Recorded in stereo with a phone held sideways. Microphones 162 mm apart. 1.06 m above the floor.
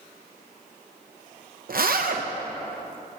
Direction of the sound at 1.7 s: 65° right (ahead or behind).